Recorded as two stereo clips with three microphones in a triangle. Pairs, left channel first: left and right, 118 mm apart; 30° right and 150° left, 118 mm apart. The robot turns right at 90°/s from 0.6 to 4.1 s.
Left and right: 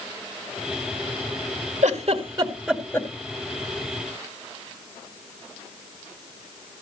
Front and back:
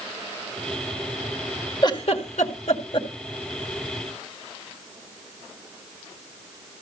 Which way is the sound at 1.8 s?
85° right.